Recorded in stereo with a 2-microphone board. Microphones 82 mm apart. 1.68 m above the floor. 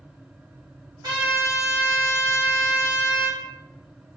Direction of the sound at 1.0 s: 55° right (ahead or behind).